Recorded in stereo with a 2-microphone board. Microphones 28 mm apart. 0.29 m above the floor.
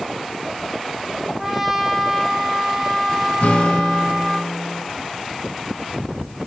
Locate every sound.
1.4 s a trumpet: 5° right (ahead or behind), 2.5 m
3.4 s a guitar: 65° left (ahead or behind), 2 m